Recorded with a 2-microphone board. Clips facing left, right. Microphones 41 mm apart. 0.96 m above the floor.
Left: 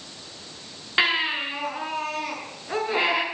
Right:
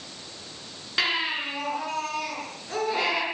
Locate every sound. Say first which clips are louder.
1.0 s a baby crying: left 4 dB; 25° left (ahead or behind), 8 m